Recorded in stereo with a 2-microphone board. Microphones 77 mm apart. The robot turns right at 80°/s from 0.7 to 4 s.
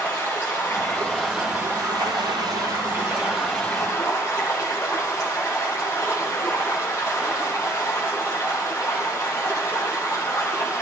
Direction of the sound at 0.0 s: 135° left.